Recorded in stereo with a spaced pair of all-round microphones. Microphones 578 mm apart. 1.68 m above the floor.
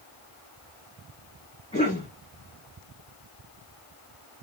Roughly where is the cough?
Centre.